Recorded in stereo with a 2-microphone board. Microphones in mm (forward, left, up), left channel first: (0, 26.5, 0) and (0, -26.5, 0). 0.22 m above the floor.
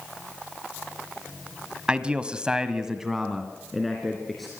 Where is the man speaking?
20° right (ahead or behind), 1.4 m; by 4.5 s centre (ahead or behind), 3.5 m.